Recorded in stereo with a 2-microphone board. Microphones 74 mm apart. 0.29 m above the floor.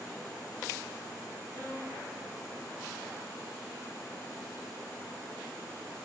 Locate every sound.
1.5 s a violin: 50° right (ahead or behind), 4.5 m